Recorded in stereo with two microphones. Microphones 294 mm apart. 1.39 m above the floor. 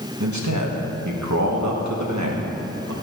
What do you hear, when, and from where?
0.2 s a man speaking: 80° right, 1.3 m